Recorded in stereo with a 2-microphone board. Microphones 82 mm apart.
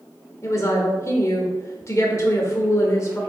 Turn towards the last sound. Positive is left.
turn(degrees=35)  # may be behind; listen again after turning